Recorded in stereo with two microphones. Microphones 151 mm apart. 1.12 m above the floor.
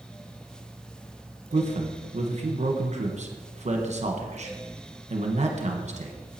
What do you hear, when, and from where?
1.5 s a man speaking: 50° right (ahead or behind), 1.2 m